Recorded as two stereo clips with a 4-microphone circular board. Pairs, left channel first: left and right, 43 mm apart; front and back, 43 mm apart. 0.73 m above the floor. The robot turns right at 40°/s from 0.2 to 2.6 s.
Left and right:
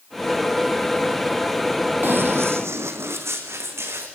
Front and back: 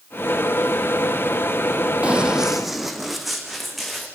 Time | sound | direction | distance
2.0 | running footsteps | 125° right | 1.7 m